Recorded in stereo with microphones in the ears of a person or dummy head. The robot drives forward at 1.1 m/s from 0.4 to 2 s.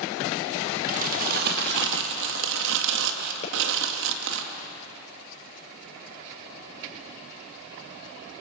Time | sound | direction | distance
0.9 | crumpling | 45° right (ahead or behind) | 2.5 m
3.4 | a pop | 40° left (ahead or behind) | 6 m